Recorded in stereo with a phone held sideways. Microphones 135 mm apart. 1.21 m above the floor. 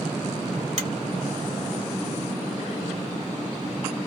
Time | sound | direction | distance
0.8 | a finger snap | 55° right (ahead or behind) | 1.7 m